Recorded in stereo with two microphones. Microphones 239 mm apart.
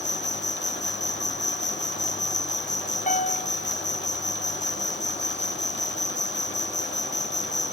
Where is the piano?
30° left (ahead or behind).